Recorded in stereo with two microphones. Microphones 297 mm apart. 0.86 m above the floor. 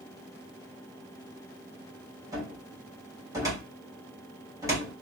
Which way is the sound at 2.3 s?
10° right (ahead or behind).